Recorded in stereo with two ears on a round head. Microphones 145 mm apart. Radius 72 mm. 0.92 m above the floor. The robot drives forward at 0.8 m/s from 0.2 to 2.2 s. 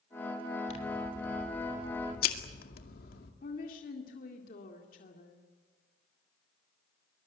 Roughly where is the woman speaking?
Left.